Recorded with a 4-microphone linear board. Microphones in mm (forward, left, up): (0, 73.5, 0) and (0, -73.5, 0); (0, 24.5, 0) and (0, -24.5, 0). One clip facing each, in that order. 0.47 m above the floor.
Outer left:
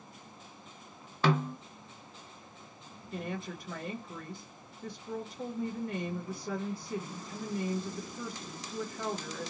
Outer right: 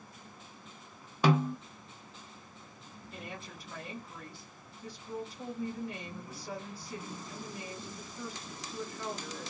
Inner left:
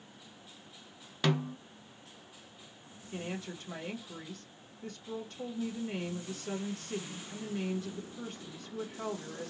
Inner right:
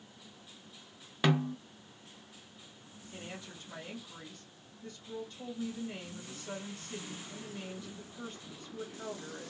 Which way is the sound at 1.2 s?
15° right (ahead or behind).